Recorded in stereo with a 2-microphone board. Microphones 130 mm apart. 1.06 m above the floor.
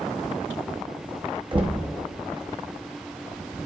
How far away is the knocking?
About 0.9 m.